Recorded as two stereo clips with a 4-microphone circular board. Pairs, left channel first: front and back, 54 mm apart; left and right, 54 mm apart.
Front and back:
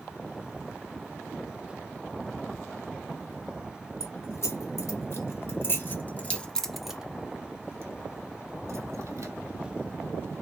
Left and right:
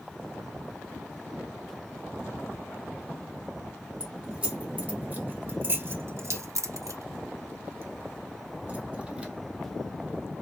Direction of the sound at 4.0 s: 25° right.